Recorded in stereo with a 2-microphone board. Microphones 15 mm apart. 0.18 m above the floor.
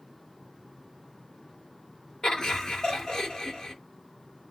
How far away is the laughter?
About 2.5 m.